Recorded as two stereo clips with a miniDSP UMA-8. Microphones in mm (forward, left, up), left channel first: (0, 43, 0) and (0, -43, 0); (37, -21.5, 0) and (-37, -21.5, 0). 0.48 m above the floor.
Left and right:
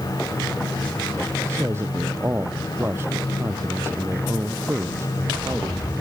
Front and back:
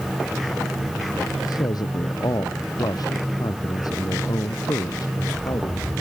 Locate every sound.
1.4 s a man speaking: 30° right